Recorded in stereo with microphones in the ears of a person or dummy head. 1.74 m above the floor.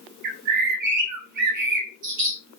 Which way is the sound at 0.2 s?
60° right (ahead or behind).